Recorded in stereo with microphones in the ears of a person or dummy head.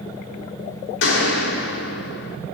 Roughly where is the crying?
I don't hear crying.